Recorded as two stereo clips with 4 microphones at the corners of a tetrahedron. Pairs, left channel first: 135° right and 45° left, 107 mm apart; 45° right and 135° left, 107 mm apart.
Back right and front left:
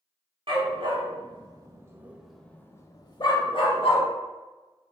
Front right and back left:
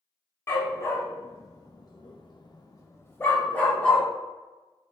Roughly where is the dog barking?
Ahead.